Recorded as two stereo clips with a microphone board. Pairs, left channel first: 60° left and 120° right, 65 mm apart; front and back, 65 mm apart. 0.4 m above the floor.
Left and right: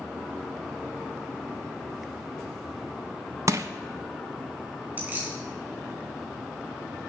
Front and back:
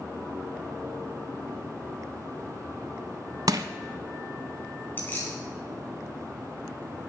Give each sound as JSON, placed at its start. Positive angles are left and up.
{"t": 3.5, "sound": "crushing", "azimuth_deg": -160, "distance_m": 0.8}
{"t": 5.0, "sound": "keys jangling", "azimuth_deg": -60, "distance_m": 3.0}